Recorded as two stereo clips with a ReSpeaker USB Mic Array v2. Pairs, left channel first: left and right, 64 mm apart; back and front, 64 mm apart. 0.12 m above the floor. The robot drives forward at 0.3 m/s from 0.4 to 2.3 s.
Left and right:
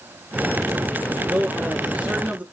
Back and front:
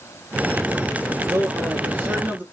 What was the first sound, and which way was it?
A man speaking, 25° right.